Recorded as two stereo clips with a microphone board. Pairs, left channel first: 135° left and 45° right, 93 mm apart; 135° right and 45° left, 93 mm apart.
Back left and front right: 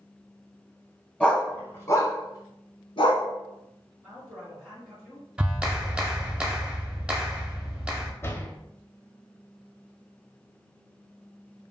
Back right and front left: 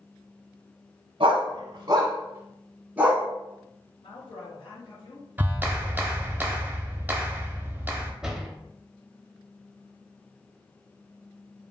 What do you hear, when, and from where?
1.2 s a dog barking: 55° left, 0.9 m; by 3.3 s 125° left, 1.1 m
4.0 s a woman speaking: 125° right, 2 m
5.4 s a clap: 20° left, 0.8 m
8.2 s a door slam: 120° left, 0.6 m